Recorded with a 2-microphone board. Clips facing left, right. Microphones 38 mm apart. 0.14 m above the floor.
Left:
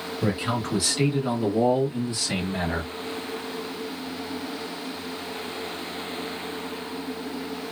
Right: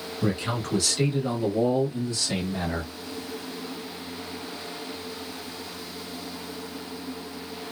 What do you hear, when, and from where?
0.2 s a man speaking: 10° left (ahead or behind), 1.3 m; by 2.9 s 20° left (ahead or behind), 1.3 m